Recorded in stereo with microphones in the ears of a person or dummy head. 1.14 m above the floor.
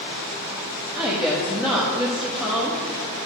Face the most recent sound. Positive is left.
turn(degrees=-5)  # may be behind; listen again after turning